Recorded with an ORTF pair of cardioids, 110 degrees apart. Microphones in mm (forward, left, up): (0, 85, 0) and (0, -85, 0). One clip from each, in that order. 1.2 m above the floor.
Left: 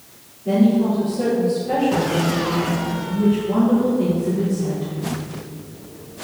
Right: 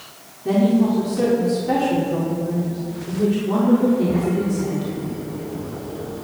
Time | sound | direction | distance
0.5 | a woman speaking | 40° right | 3.5 m